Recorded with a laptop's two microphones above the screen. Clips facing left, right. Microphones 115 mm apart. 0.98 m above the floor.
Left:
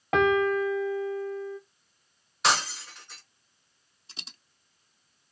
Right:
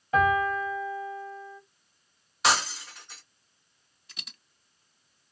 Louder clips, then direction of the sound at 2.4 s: Right 1 dB; centre (ahead or behind).